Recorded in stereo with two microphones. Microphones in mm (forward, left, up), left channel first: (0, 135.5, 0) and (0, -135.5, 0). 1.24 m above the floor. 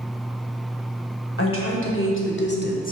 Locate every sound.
1.4 s a woman speaking: 55° left (ahead or behind), 1.7 m; by 2.9 s 30° left (ahead or behind), 0.7 m